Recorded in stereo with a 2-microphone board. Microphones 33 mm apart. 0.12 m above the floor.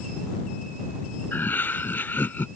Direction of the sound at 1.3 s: 80° left.